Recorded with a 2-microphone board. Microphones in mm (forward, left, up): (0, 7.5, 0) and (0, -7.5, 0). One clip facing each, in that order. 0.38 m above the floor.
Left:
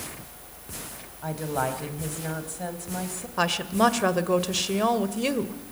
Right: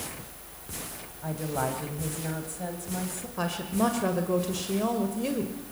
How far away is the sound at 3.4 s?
About 1.9 m.